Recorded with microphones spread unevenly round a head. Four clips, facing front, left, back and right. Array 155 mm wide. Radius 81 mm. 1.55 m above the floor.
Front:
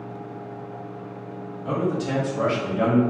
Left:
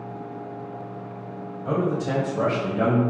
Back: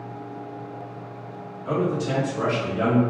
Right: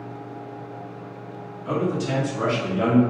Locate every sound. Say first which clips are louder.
1.6 s a man speaking: even, back 1 dB; 75° left, 1.1 m; by 3.0 s 90° left, 1.7 m